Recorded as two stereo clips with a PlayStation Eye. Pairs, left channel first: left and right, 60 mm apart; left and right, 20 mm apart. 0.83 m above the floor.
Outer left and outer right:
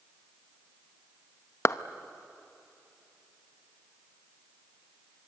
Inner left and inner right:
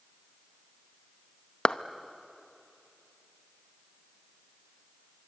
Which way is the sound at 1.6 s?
45° left (ahead or behind).